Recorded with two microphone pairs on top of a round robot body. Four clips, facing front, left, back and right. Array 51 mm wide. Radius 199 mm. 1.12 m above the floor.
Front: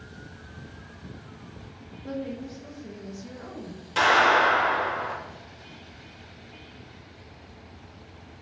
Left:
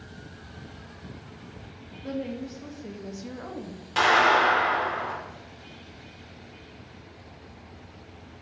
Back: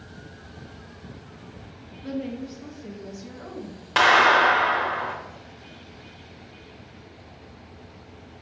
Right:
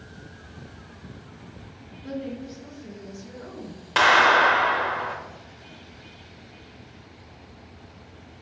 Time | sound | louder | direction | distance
2.0 | a woman speaking | left 1 dB, back 2 dB | 155° left | 1.1 m
4.0 | a clap | right 3 dB, back 3 dB | 150° right | 1.0 m